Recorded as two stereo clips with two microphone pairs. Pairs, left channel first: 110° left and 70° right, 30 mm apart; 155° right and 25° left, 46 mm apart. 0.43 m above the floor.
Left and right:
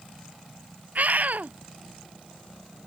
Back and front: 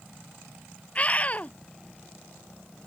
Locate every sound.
0.9 s a scream: 95° right